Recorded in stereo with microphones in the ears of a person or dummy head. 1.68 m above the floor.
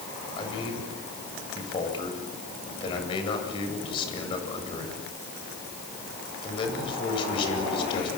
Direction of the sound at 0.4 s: 30° left (ahead or behind).